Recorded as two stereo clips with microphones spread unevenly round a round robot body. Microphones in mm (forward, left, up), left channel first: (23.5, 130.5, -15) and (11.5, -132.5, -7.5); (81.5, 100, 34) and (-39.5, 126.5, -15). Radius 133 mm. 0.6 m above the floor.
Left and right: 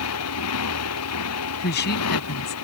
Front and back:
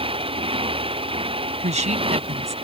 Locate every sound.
0.0 s a motorcycle: 125° left
1.6 s a woman speaking: 140° left